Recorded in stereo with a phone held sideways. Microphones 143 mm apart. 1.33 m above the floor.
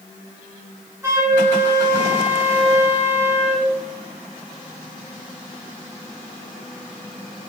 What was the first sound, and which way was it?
A flute, 20° right (ahead or behind).